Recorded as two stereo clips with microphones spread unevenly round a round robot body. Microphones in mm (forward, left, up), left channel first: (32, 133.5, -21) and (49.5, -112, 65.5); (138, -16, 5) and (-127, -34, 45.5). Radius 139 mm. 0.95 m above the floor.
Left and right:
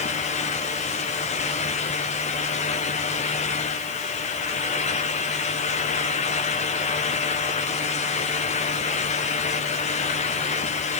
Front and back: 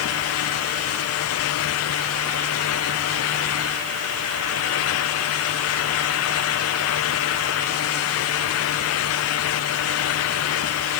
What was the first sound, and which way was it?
Only background noise.